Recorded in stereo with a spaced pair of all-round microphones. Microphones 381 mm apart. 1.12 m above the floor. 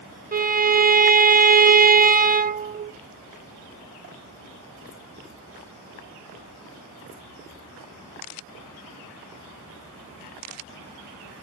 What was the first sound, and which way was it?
A violin, 25° right (ahead or behind).